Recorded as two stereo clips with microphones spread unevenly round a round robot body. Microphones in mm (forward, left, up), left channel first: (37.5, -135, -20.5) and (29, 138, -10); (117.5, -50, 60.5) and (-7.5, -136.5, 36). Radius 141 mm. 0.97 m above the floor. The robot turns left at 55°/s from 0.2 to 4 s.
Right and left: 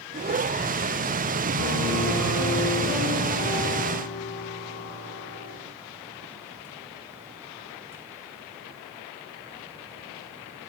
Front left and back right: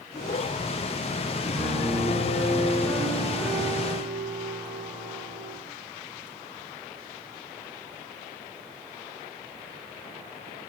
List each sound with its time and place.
1.5 s a piano: 50° left, 2 m; by 5.6 s 85° right, 2 m